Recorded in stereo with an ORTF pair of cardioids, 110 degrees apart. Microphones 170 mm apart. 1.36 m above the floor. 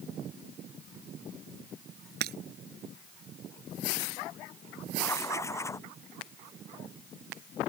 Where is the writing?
15° left.